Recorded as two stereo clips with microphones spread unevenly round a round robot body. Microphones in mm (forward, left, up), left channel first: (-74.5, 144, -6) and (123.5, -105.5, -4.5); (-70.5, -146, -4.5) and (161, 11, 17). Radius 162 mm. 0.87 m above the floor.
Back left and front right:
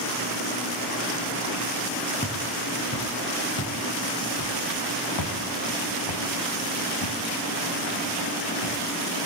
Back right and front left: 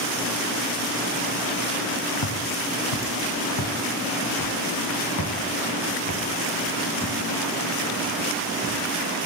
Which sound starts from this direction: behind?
Footsteps, at 2.2 s.